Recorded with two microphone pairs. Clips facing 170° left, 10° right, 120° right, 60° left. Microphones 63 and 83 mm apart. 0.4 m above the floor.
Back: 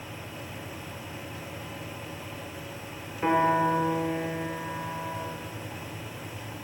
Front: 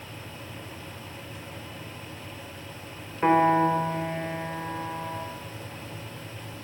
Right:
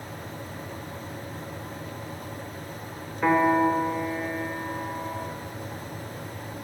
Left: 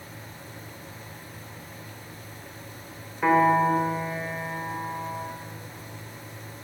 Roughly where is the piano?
Ahead right.